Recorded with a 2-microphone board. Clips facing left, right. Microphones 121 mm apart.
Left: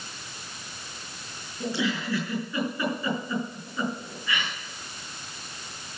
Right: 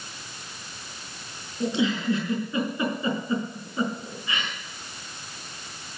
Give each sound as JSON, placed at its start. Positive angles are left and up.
{"t": 1.6, "sound": "a giggle", "side_deg": -25, "distance_m": 5.5}